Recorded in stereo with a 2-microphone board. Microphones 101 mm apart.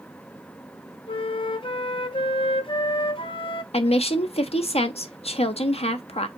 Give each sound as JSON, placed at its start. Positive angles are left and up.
{"t": 1.1, "sound": "a flute", "side_deg": 60, "distance_m": 0.5}
{"t": 3.7, "sound": "a woman speaking", "side_deg": 80, "distance_m": 0.7}